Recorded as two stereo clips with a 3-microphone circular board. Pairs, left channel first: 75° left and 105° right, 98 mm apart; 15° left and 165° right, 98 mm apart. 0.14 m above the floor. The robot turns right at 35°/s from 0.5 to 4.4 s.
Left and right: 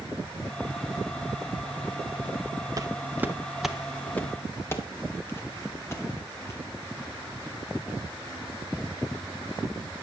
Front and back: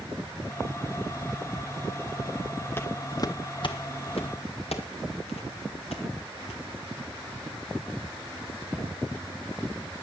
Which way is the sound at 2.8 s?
50° right.